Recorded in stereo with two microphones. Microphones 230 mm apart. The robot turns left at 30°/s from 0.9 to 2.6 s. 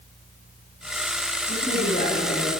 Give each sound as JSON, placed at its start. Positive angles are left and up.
{"t": 1.5, "sound": "a woman speaking", "azimuth_deg": 70, "distance_m": 3.5}